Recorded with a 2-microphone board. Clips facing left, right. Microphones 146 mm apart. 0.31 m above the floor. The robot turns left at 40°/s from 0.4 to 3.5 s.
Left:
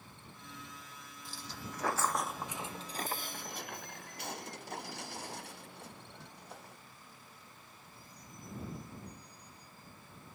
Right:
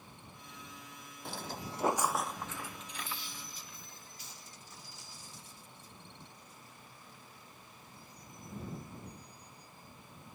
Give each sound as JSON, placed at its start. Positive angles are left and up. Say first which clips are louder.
{"t": 1.2, "sound": "footsteps", "louder": "right 5 dB", "side_deg": -75}